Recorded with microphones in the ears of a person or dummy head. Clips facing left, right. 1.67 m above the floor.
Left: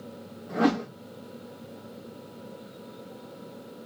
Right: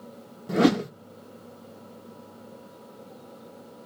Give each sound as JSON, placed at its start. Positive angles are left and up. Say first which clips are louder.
{"t": 0.5, "sound": "a whoosh", "louder": "right 4 dB", "side_deg": -35, "distance_m": 0.5}